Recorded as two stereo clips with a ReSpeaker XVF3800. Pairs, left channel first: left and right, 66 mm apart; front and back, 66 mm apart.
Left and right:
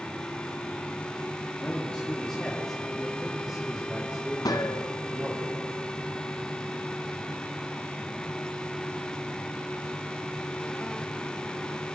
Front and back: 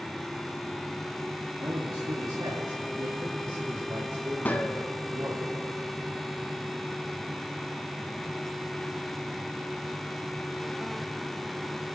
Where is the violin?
I don't hear a violin.